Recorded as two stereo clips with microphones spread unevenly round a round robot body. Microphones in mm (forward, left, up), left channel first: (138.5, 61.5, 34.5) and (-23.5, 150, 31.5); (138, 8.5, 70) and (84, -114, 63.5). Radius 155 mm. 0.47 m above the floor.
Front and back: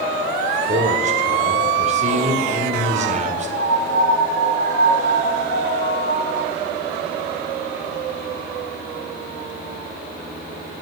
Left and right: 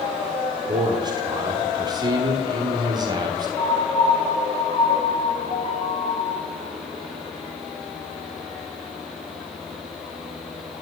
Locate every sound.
0.7 s a man speaking: 165° right, 1.4 m
3.6 s a piano: 10° left, 4 m